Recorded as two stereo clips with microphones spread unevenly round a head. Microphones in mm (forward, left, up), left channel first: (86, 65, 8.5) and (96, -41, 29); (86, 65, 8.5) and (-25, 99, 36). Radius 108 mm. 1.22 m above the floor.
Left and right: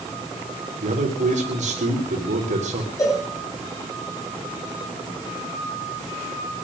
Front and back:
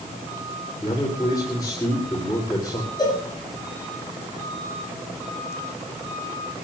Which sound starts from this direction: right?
A man speaking, at 0.8 s.